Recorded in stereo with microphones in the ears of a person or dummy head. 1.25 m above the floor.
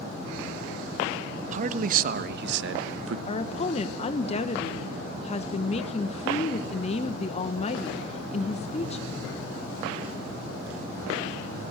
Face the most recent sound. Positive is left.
turn(degrees=35)  # may be behind; listen again after turning